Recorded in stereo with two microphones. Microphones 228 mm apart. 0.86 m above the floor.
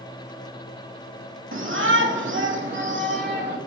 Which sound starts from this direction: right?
A shout, at 1.5 s.